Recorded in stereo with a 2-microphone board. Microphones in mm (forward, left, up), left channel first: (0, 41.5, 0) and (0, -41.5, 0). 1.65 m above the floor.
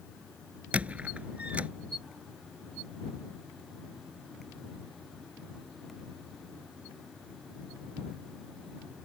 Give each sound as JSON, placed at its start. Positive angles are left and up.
{"t": 0.7, "sound": "a squeak", "side_deg": -15}